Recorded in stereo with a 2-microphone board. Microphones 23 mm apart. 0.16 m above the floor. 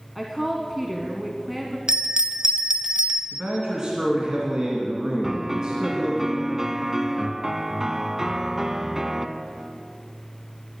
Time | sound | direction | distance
0.1 | a woman speaking | centre (ahead or behind) | 1.3 m
1.9 | a bell | 40° right (ahead or behind) | 0.8 m
3.3 | a man speaking | 30° right (ahead or behind) | 2 m
5.2 | a piano | 15° right (ahead or behind) | 0.6 m